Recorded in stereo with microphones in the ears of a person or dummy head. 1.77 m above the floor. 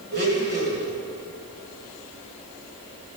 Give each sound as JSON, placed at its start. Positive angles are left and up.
{"t": 0.1, "sound": "a blender", "side_deg": -45, "distance_m": 1.5}